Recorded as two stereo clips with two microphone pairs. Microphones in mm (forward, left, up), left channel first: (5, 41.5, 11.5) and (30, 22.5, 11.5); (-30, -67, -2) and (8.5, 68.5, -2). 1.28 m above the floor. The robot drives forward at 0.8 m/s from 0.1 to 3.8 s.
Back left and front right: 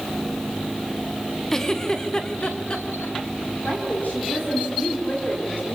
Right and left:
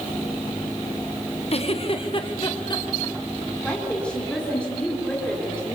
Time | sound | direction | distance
1.5 | a giggle | 145° right | 1.2 m
3.6 | a woman speaking | 170° left | 3.5 m